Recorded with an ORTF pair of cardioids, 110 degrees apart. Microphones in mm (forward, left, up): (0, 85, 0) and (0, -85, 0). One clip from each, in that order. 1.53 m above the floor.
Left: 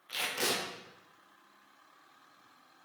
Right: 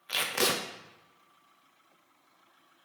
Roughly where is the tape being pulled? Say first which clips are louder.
Right 4 dB; ahead right.